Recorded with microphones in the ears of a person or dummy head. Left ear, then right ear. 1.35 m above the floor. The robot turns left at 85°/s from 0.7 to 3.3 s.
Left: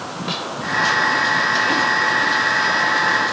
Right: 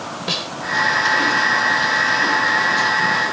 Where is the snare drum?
15° right (ahead or behind).